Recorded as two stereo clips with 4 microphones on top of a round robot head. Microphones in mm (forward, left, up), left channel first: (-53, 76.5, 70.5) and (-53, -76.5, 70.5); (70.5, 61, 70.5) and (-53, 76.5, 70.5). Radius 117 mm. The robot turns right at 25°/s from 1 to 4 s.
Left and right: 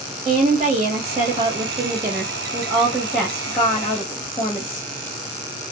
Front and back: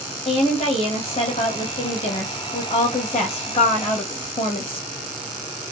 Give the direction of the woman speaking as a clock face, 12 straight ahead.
2 o'clock.